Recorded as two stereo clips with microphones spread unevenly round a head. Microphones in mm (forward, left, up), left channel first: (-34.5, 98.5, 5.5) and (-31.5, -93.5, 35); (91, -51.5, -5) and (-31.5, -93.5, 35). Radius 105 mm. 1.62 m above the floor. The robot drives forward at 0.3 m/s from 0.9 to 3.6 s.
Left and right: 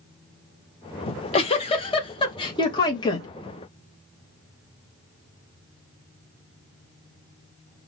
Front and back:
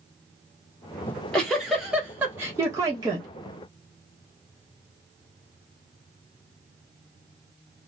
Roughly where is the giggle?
Behind left.